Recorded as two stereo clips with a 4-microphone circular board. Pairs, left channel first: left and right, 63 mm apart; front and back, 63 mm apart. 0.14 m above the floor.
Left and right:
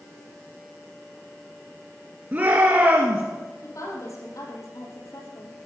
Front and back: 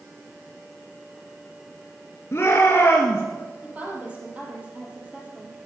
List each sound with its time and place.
2.3 s a shout: 40° right, 2.5 m
3.6 s a woman speaking: 115° left, 5.5 m